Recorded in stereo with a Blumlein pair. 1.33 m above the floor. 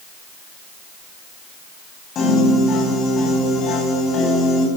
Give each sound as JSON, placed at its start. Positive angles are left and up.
{"t": 2.1, "sound": "a piano", "azimuth_deg": 30, "distance_m": 8.5}